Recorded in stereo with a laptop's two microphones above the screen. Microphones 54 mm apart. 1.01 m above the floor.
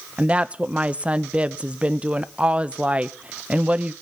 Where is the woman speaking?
20° right (ahead or behind), 0.7 m.